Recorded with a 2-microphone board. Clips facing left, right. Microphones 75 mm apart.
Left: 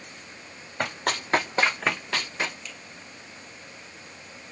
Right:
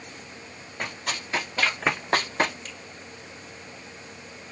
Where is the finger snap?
45° right (ahead or behind), 1.3 m.